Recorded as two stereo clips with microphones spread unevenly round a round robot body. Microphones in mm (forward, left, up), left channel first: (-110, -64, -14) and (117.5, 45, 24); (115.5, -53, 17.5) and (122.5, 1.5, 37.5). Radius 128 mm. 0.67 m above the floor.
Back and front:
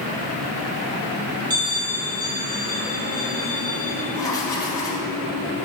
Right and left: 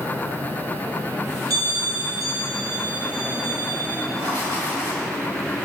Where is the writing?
130° left, 1.2 m.